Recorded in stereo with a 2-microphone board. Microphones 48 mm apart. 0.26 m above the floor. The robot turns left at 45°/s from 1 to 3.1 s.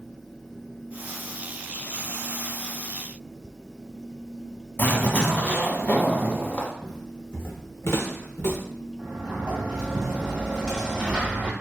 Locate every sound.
4.8 s a zipper: 40° left (ahead or behind), 1.1 m
6.8 s footsteps: 10° left (ahead or behind), 0.7 m; by 8.6 s 85° left, 1.6 m
9.0 s a sliding door: 20° right (ahead or behind), 1.7 m